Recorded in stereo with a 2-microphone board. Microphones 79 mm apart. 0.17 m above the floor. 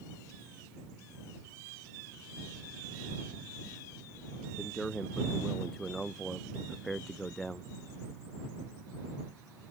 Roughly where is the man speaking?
Centre.